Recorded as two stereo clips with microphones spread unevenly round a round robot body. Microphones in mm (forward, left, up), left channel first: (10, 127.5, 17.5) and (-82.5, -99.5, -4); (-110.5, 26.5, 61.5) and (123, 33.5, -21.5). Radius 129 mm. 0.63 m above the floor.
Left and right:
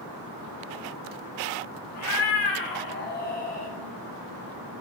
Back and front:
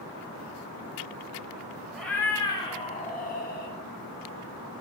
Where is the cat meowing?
90° left, 1.2 m; by 3.8 s 135° left, 1.5 m.